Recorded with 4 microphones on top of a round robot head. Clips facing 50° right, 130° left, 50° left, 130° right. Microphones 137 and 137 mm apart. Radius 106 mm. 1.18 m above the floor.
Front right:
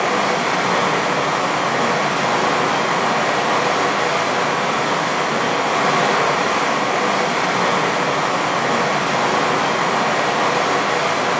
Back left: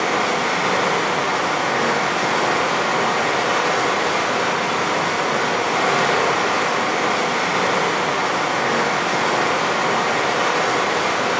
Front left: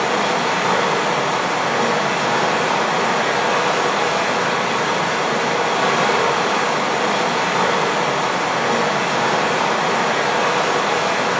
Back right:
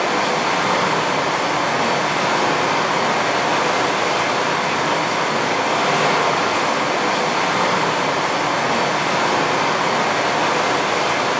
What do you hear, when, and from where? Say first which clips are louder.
0.0 s running water: front right 2 dB, even; 15° left, 1.5 m